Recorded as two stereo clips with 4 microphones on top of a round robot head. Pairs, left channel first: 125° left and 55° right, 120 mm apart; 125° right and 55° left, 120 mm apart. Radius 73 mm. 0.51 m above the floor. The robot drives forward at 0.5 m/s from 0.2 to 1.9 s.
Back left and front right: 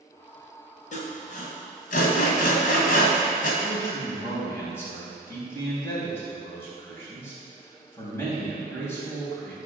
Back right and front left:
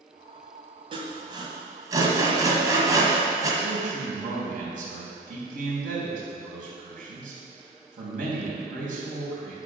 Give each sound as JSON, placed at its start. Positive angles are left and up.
{"t": 0.9, "sound": "sawing", "azimuth_deg": 100, "distance_m": 1.9}
{"t": 3.6, "sound": "a man speaking", "azimuth_deg": 55, "distance_m": 4.0}